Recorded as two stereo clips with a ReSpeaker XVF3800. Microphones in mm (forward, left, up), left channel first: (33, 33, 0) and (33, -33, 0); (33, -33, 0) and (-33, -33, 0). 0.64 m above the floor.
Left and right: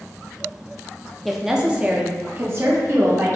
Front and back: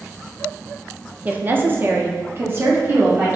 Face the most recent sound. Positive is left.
turn(degrees=-125)